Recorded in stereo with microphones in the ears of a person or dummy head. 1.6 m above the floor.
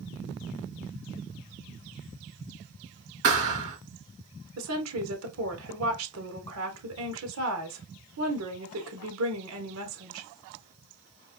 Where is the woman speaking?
80° right, 1.4 m.